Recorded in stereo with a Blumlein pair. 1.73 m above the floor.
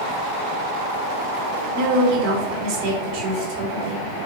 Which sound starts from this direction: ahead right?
A woman speaking, at 1.8 s.